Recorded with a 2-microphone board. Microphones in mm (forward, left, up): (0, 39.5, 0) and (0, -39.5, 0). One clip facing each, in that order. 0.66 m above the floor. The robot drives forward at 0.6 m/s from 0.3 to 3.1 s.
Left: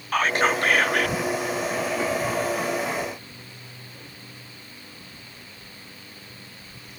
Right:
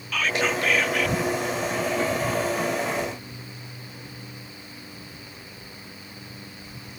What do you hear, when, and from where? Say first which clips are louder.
0.1 s whispering: left 3 dB; 40° left (ahead or behind); by 1.1 s 45° left (ahead or behind)